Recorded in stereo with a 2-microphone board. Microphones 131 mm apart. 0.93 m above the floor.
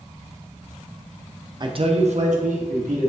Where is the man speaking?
35° right (ahead or behind), 0.5 m; by 3.1 s 75° right (ahead or behind), 1.2 m.